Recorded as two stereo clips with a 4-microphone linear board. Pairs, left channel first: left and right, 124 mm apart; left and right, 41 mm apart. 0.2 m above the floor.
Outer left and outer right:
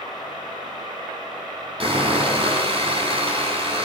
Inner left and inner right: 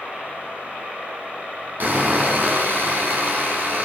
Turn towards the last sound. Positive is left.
turn(degrees=-45)  # may be behind; listen again after turning